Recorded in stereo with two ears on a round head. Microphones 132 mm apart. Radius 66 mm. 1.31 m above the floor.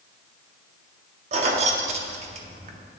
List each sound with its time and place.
1.3 s keys jangling: 45° right (ahead or behind), 0.6 m